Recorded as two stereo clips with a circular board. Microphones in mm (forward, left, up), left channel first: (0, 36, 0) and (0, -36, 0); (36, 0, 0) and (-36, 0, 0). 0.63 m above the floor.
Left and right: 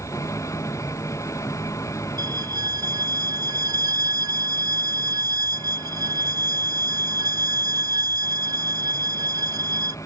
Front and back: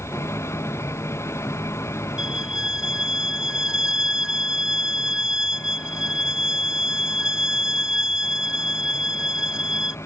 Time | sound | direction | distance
0.0 | an engine running | 50° left | ?
2.2 | a violin | 100° right | ?